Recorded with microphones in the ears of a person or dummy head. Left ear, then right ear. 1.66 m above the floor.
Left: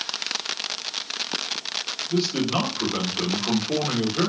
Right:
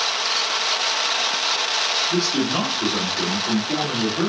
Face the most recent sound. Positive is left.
turn(degrees=15)  # may be behind; listen again after turning